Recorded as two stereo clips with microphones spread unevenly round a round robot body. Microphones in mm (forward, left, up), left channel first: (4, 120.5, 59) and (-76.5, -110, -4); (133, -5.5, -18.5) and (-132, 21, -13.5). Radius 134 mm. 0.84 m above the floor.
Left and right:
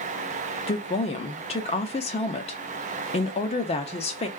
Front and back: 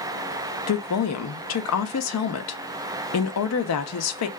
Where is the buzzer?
No buzzer in this recording.